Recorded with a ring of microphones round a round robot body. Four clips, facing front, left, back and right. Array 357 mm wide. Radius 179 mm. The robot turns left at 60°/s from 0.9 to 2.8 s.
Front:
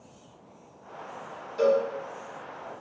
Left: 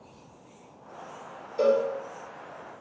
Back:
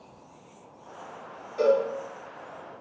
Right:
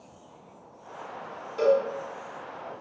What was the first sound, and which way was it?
A cowbell, 110° right.